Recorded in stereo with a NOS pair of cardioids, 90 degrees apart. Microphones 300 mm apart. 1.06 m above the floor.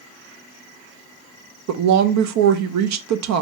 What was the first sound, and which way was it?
A woman speaking, 65° right.